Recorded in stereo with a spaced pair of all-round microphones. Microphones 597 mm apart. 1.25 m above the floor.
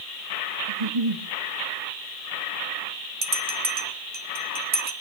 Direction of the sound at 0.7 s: 65° right (ahead or behind).